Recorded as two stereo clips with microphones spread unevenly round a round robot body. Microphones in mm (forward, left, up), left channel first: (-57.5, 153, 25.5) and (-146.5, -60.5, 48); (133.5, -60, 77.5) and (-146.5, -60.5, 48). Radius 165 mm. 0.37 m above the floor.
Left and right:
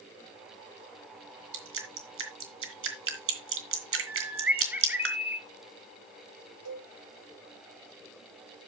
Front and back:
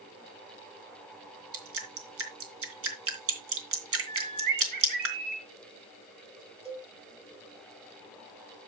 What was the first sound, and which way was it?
Dripping, 140° right.